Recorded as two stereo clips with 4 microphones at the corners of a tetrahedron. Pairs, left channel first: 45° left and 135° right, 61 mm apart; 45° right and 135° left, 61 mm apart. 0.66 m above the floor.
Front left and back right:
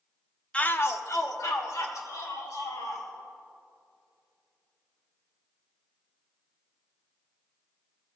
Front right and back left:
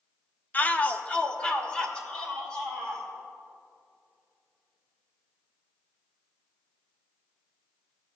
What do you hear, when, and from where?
0.5 s a shout: 15° right, 0.6 m; by 3.1 s 35° left, 3.5 m